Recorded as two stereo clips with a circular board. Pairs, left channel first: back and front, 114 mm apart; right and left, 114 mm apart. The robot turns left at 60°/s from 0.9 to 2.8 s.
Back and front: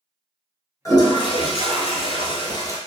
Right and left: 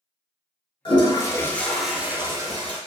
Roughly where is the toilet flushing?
Behind right.